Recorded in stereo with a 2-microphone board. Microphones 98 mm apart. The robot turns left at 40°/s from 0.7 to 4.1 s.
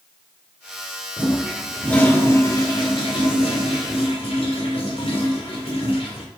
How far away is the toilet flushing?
About 2 m.